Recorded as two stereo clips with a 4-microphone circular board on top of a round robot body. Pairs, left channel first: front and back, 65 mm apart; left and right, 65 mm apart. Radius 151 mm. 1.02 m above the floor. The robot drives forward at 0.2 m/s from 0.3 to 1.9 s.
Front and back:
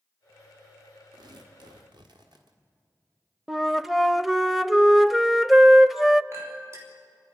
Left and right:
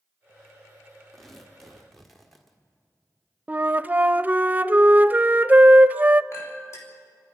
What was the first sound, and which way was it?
Tearing paper, 175° left.